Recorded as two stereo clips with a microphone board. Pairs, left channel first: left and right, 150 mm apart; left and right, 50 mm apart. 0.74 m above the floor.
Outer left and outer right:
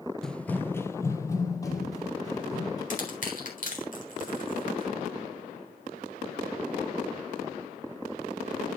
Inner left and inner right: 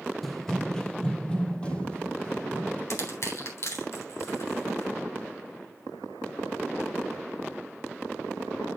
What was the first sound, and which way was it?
Running footsteps, 5° left (ahead or behind).